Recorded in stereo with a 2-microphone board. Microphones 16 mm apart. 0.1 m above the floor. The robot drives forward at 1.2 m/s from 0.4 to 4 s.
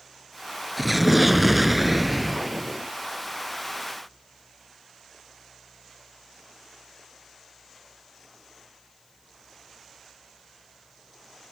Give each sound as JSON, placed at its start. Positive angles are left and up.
{"t": 0.8, "sound": "an explosion", "side_deg": -5}